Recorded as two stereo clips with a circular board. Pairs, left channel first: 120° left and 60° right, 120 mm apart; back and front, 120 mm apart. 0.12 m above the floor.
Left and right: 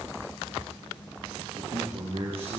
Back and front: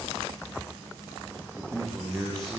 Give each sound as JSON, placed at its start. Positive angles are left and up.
{"t": 1.6, "sound": "a man speaking", "azimuth_deg": -90, "distance_m": 9.0}